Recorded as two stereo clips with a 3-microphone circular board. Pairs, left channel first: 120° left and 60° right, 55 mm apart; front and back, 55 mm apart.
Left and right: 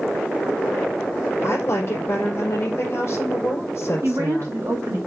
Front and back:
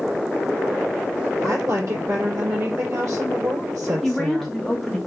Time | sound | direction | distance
1.4 | a woman speaking | 160° left | 3 m
4.0 | a woman speaking | 85° right | 1.9 m